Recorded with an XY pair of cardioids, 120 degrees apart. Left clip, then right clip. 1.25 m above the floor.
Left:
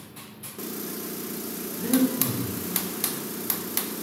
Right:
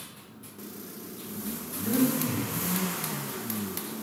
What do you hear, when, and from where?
1.8 s breathing: 60° left, 1.1 m